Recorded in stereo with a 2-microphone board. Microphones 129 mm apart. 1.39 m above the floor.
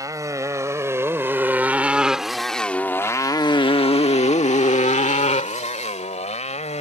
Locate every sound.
0.0 s a motorcycle: 25° right (ahead or behind); by 6.8 s 55° left (ahead or behind)